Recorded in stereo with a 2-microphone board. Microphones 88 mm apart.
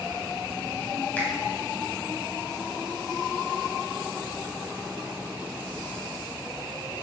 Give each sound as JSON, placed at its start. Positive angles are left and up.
{"t": 1.2, "sound": "a finger snap", "side_deg": 20, "distance_m": 4.0}